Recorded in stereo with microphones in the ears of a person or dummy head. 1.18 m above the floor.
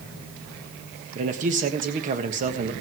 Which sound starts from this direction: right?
A man speaking, at 1.1 s.